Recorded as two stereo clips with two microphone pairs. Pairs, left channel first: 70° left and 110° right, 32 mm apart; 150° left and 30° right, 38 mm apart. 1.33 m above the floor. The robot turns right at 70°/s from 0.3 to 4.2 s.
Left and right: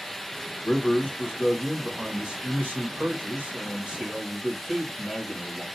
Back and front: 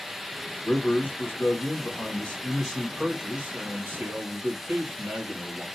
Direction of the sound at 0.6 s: 80° left.